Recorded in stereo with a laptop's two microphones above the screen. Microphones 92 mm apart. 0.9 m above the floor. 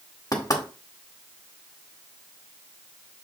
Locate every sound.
0.3 s knocking: 45° left (ahead or behind), 1.4 m